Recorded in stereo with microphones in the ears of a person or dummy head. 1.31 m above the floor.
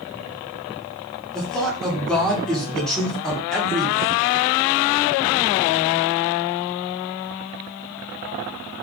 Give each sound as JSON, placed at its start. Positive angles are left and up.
{"t": 1.3, "sound": "a man speaking", "side_deg": 5, "distance_m": 1.5}